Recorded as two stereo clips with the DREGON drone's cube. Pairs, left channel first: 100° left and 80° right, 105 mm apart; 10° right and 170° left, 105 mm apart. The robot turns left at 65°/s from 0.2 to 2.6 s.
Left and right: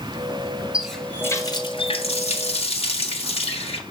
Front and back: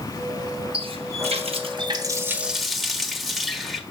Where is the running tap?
160° right, 1.4 m; by 3.8 s 80° left, 1.4 m.